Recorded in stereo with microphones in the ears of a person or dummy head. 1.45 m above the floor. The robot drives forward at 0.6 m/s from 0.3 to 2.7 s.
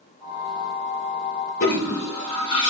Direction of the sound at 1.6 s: 40° left (ahead or behind).